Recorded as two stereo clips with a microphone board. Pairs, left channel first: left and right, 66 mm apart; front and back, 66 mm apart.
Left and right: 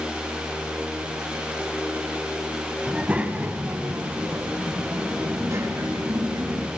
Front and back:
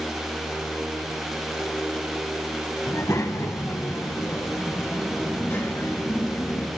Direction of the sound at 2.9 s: 20° right.